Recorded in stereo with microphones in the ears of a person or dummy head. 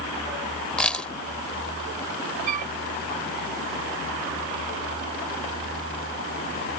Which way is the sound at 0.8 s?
15° left (ahead or behind).